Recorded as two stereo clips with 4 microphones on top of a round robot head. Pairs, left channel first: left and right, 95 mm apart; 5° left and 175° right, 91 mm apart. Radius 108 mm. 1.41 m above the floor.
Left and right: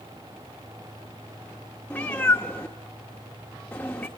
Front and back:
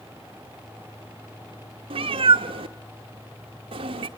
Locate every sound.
1.9 s a cat meowing: 170° left, 1.2 m